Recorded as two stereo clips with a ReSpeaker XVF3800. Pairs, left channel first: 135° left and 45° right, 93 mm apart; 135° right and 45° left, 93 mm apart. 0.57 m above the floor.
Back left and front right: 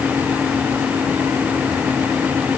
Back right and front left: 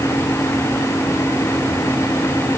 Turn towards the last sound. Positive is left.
No sound to turn to.